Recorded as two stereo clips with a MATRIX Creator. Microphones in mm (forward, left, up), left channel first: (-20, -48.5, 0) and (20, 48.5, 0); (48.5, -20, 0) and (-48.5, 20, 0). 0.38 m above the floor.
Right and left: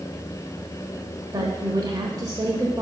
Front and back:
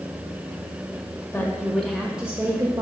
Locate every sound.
1.3 s a woman speaking: 35° left, 1.1 m; by 2.8 s 115° left, 1.0 m